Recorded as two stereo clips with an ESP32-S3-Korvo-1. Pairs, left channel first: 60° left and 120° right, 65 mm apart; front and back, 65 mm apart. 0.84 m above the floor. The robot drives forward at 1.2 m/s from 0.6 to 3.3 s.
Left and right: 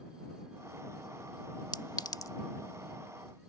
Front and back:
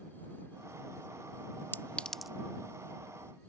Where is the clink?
55° left; by 2.3 s 100° left.